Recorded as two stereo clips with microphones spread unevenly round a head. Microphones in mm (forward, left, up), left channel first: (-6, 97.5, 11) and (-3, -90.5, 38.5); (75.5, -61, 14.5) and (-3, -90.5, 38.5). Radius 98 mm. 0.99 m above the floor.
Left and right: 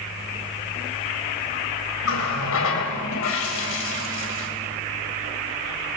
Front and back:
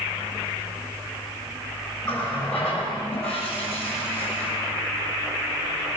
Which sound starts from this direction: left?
A running tap, at 2.0 s.